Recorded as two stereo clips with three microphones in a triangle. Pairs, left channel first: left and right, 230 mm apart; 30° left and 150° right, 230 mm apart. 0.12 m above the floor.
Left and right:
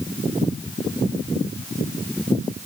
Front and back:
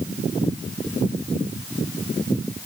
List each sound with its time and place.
Only background noise.